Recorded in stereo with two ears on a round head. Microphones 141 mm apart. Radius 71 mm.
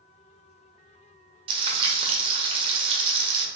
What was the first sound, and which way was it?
Frying, 35° right (ahead or behind).